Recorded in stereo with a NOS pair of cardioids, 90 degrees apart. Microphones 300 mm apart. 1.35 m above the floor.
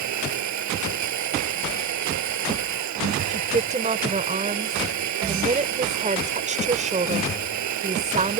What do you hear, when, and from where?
0.0 s a machine running: 70° right
3.3 s a woman speaking: 25° right